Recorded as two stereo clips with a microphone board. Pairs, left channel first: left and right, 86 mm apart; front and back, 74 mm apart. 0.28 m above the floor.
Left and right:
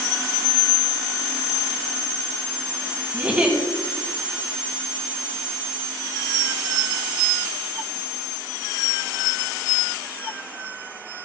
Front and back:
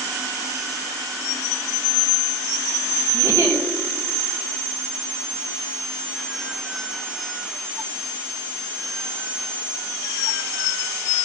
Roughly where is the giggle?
Behind right.